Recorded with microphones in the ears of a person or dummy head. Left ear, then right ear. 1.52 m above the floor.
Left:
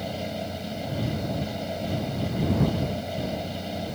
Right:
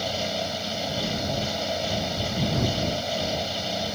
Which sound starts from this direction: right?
A fan, at 0.0 s.